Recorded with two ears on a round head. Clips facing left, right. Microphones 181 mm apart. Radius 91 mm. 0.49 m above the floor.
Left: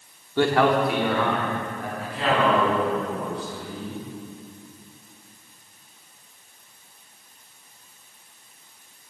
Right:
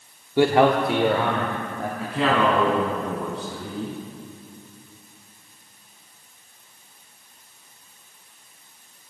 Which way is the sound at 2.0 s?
70° right (ahead or behind).